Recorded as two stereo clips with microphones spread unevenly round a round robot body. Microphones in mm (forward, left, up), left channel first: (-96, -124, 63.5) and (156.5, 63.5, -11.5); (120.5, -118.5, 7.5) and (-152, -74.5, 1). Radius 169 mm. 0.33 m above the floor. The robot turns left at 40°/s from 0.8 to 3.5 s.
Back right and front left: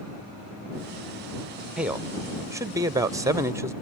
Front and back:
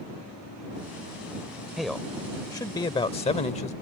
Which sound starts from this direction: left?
A man speaking, at 1.8 s.